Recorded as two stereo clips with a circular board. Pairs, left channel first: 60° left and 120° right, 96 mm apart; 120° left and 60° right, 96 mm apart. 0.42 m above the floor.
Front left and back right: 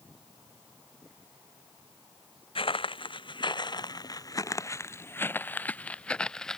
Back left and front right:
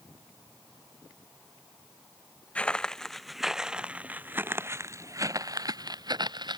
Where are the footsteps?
45° left; by 6.6 s 25° right.